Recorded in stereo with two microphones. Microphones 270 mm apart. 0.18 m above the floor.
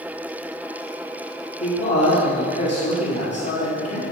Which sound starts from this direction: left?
A man speaking, at 1.6 s.